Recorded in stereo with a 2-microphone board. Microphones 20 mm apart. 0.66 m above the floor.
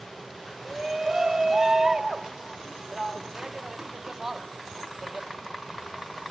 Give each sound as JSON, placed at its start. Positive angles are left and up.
{"t": 0.7, "sound": "a shout", "side_deg": -30, "distance_m": 1.1}